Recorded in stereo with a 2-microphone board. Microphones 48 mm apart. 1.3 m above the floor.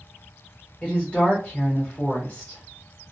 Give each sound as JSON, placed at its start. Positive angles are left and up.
{"t": 0.8, "sound": "a woman speaking", "side_deg": 25, "distance_m": 0.9}